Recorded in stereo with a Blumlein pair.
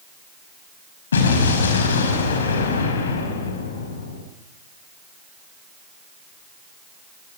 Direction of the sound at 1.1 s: 65° left.